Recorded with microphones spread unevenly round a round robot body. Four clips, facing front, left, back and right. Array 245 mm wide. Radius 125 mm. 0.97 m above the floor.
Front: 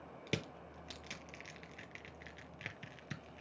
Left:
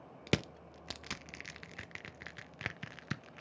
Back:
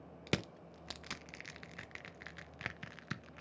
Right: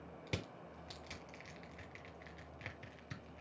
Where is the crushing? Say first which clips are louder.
Left 11 dB, back 3 dB; 100° left, 0.6 m.